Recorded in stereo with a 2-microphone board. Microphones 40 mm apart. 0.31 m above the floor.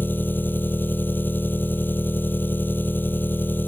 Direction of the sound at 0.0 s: 60° left (ahead or behind).